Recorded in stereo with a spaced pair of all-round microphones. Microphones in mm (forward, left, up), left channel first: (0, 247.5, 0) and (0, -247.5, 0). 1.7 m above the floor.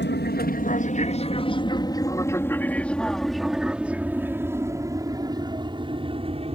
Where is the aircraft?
20° left (ahead or behind); by 6.5 s 10° right (ahead or behind).